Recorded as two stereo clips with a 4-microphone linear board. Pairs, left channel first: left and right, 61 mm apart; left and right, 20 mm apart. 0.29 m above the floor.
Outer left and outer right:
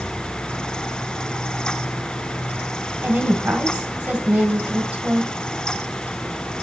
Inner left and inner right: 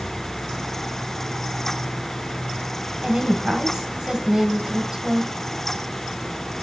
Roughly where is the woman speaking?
Right.